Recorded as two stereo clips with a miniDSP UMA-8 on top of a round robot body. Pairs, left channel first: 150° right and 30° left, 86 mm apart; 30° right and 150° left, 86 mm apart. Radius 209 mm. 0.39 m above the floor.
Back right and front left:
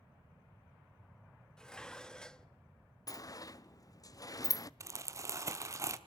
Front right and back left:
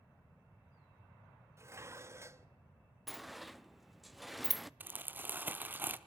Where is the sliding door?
120° right, 0.6 m.